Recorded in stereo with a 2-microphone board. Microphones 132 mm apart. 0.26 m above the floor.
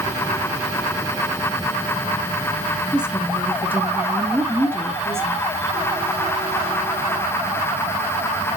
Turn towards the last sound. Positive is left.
turn(degrees=-20)  # may be behind; listen again after turning